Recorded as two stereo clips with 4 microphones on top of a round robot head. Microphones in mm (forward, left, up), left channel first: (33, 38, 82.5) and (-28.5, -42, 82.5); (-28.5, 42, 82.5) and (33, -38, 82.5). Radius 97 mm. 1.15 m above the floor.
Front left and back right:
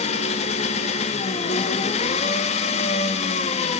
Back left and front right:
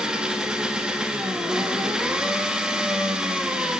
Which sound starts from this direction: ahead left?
An engine running, at 0.0 s.